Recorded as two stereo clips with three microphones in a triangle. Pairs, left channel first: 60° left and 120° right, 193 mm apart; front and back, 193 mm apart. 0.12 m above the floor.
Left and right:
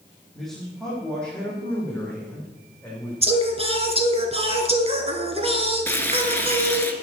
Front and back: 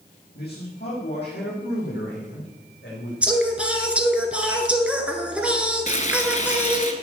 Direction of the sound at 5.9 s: 15° right.